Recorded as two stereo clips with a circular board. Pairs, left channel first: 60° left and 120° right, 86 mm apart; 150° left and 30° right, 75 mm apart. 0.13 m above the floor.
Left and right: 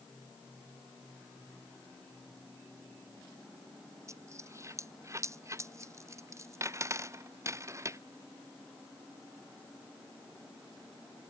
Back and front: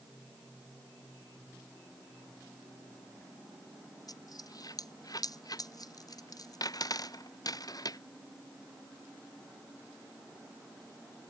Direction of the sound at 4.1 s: 175° right.